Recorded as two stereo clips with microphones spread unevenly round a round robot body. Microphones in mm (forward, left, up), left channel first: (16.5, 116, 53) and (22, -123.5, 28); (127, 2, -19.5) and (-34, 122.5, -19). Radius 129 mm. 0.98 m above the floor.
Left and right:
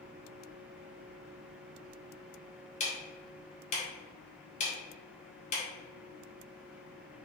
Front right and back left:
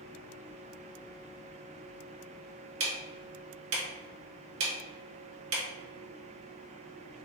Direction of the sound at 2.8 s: 155° left.